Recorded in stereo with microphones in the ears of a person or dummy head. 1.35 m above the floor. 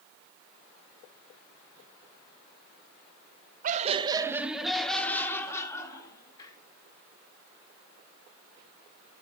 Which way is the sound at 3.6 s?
50° right (ahead or behind).